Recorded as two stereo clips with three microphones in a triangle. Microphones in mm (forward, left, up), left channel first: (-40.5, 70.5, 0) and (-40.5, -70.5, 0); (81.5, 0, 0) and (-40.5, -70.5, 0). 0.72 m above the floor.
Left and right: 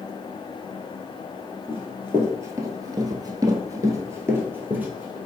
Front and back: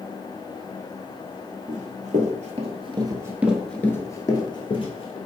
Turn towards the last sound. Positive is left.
turn(degrees=-10)